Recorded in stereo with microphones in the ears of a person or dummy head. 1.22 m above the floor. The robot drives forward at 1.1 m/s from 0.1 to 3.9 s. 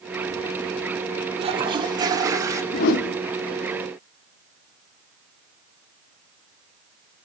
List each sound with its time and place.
1.4 s a toilet flushing: 30° right (ahead or behind), 1.6 m; by 2.6 s 15° right (ahead or behind), 3 m
2.7 s a whoosh: 50° left (ahead or behind), 1.2 m